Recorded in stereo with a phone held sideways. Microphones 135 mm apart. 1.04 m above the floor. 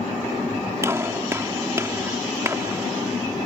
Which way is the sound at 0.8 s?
20° right (ahead or behind).